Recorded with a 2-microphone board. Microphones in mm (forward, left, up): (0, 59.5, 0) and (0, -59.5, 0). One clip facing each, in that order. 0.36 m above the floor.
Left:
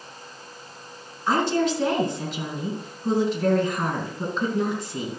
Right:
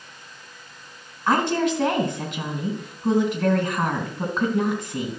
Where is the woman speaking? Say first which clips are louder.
Right 1 dB; 60° right (ahead or behind), 3 m.